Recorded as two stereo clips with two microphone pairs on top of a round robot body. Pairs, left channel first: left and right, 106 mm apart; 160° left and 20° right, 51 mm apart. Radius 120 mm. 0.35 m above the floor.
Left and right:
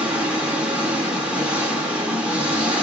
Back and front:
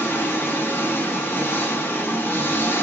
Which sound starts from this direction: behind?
An engine running, at 0.0 s.